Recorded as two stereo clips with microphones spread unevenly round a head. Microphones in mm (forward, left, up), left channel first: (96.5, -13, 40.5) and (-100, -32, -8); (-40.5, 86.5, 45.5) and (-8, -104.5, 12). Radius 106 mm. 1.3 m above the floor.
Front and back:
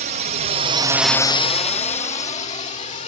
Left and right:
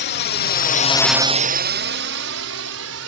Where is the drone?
135° left; by 3.1 s 55° right.